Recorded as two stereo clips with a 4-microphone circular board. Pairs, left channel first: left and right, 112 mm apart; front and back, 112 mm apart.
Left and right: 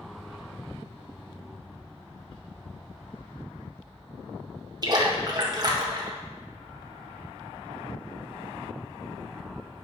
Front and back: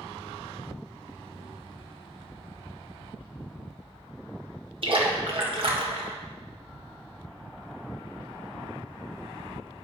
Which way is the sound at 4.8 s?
145° right.